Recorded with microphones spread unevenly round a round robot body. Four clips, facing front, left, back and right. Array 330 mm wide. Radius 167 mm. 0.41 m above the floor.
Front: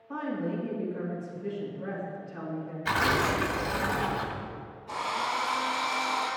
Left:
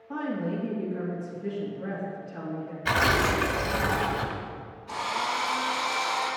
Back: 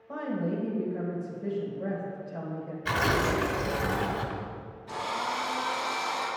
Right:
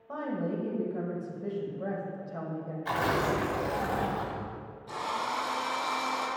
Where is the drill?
145° right, 3.5 m.